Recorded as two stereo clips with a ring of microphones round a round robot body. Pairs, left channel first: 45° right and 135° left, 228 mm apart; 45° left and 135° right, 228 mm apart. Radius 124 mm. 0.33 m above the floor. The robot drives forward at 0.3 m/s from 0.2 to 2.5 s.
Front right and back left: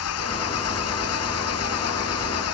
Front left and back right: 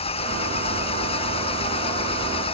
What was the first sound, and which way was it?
An engine running, 20° right.